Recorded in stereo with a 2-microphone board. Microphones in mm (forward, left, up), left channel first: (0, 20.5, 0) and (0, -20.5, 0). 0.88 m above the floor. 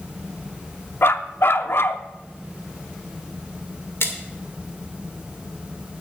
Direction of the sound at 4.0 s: 75° left (ahead or behind).